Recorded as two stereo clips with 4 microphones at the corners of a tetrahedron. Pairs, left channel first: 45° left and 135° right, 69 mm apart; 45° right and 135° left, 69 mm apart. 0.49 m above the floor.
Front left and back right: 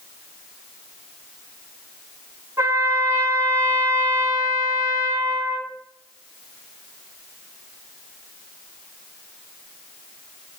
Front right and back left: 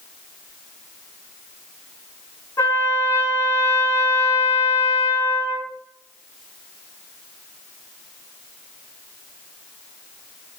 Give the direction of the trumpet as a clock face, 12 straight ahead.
3 o'clock.